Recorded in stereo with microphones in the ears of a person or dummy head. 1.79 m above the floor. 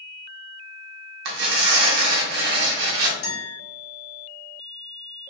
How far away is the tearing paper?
About 0.6 m.